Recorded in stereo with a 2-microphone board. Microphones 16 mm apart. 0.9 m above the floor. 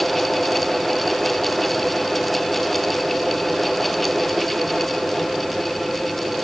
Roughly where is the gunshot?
No gunshot in this recording.